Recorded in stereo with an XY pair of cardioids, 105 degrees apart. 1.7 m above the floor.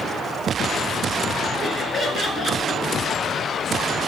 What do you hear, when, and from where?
1.6 s laughter: 30° left, 3.5 m